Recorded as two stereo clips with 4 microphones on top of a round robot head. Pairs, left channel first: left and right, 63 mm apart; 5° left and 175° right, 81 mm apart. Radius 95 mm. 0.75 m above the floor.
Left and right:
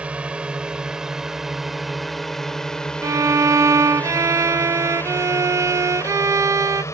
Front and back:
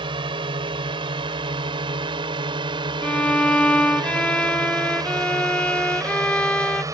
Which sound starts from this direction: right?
A violin, at 3.0 s.